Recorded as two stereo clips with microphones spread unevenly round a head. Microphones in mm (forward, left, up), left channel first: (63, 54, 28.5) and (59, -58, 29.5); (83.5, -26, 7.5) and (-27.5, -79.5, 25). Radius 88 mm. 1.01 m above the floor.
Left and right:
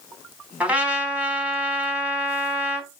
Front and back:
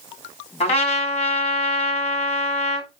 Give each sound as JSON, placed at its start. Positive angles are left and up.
{"t": 0.6, "sound": "a trumpet", "azimuth_deg": -15, "distance_m": 3.5}